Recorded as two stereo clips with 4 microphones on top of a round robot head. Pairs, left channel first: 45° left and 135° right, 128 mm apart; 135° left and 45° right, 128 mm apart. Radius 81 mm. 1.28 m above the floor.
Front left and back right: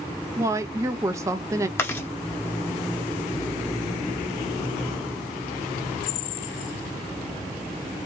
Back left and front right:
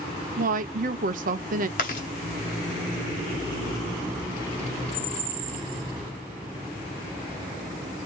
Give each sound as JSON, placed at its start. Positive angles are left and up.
{"t": 0.4, "sound": "a woman speaking", "azimuth_deg": -65, "distance_m": 0.8}
{"t": 1.8, "sound": "chewing", "azimuth_deg": 115, "distance_m": 1.2}